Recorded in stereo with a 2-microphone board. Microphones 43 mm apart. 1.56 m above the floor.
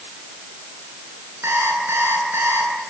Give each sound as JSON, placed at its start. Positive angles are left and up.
{"t": 1.4, "sound": "an alarm clock", "side_deg": -75, "distance_m": 10.0}